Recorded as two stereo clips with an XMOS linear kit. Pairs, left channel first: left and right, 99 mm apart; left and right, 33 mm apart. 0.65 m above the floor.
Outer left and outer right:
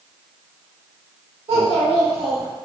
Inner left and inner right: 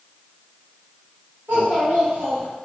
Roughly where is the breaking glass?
No breaking glass in this recording.